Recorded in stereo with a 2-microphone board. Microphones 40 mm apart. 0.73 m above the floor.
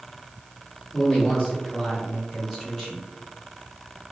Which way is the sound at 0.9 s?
25° left (ahead or behind).